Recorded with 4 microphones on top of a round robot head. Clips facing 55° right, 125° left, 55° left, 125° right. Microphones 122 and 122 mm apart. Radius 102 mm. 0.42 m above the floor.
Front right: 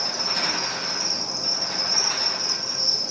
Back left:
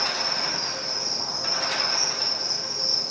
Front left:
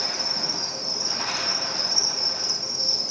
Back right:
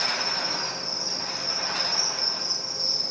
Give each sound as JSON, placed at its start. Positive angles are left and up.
{"t": 0.0, "sound": "an insect", "azimuth_deg": 0, "distance_m": 2.5}